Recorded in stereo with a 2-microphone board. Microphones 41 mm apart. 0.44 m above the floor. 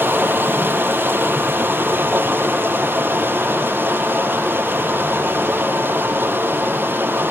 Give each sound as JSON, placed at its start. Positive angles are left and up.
{"t": 0.0, "sound": "running water", "side_deg": -65, "distance_m": 7.5}